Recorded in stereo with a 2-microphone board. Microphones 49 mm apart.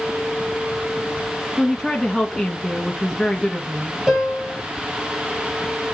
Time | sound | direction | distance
1.6 | a woman speaking | centre (ahead or behind) | 1.2 m
4.1 | a piano | 10° right (ahead or behind) | 4 m